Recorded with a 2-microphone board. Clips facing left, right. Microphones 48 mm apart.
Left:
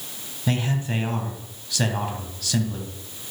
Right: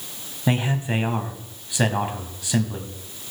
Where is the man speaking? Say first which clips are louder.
Right 2 dB; 20° right (ahead or behind), 1.4 m.